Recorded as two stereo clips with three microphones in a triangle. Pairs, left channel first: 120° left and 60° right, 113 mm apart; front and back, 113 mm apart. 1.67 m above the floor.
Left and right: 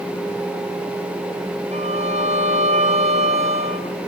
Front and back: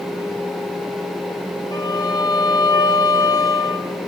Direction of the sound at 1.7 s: 55° right.